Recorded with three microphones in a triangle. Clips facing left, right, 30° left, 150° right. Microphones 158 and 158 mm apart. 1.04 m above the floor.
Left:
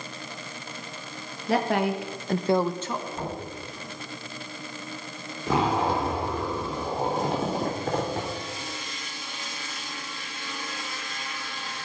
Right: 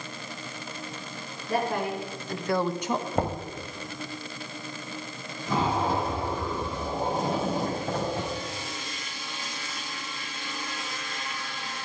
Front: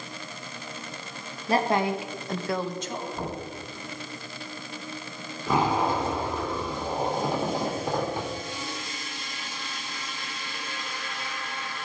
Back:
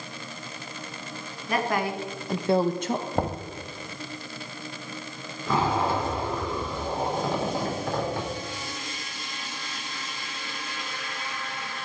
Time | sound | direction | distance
1.5 | a woman speaking | 85° left | 1.6 m
3.1 | knocking | 125° right | 1.5 m
5.5 | a zipper | 105° left | 2.5 m